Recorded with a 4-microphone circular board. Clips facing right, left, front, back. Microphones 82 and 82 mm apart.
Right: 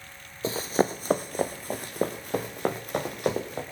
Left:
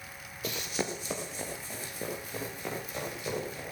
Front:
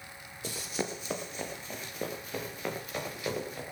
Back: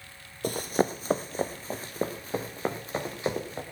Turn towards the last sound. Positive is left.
turn(degrees=-120)